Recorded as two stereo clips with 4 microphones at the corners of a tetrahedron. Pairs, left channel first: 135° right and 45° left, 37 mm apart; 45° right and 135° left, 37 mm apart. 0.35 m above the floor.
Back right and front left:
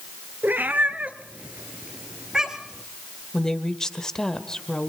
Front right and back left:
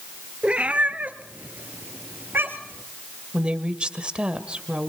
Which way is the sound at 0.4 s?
75° left.